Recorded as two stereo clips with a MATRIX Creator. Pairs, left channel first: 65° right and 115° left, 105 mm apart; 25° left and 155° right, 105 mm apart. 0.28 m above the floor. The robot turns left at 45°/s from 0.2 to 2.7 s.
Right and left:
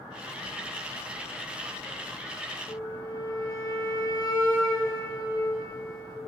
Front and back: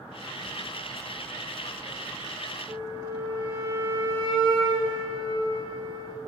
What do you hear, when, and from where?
2.7 s a flute: 120° right, 3 m